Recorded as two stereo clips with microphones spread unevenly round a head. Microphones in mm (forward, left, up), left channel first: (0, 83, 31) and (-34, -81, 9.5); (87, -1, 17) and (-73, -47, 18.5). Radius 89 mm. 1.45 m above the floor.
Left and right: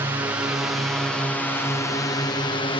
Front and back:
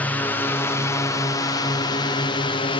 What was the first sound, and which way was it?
A drone, 50° right.